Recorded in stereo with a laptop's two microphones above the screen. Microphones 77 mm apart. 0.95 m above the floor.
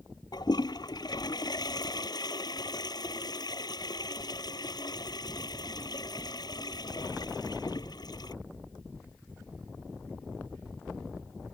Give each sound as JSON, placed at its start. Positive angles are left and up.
{"t": 0.3, "sound": "a toilet flushing", "side_deg": 60}